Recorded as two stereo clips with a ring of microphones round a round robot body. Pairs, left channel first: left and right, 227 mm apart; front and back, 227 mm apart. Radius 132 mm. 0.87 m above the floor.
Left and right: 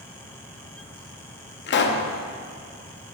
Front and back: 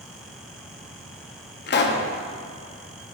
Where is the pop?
45° left, 0.6 m.